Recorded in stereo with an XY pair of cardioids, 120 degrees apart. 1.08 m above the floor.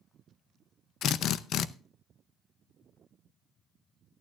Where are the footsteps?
No footsteps in this recording.